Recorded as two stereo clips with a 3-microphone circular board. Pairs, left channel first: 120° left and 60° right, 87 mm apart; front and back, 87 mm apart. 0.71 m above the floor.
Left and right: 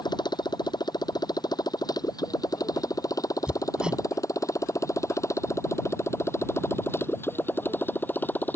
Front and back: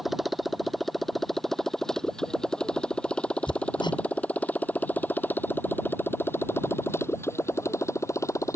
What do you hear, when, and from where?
0.0 s a motorcycle: 95° left; by 8.6 s 55° left
3.5 s hammering: 20° left